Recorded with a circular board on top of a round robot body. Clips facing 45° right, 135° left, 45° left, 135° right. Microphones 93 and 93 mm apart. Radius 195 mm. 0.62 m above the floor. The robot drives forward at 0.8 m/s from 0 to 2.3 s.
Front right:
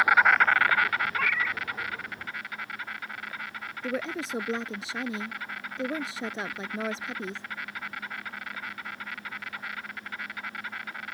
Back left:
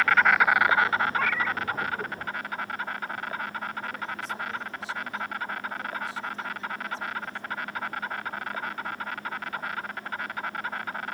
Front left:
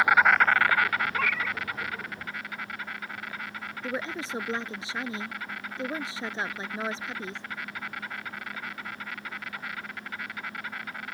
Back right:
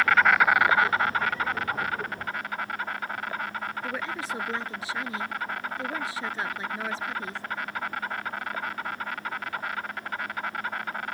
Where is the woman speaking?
25° right.